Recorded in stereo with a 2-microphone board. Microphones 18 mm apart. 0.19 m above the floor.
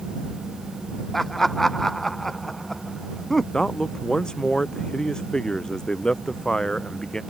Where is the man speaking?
50° left (ahead or behind).